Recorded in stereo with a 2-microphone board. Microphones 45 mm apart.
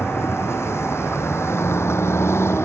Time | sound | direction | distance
0.0 | a vehicle | 85° left | ?